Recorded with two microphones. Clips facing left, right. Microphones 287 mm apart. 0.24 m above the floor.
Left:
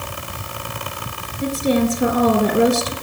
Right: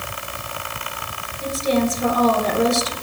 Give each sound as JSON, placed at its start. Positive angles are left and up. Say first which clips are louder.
{"t": 1.4, "sound": "a woman speaking", "louder": "left 2 dB", "side_deg": 65, "distance_m": 3.5}